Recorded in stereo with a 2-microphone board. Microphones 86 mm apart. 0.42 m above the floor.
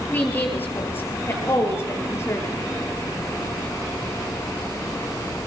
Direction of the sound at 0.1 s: 20° left (ahead or behind).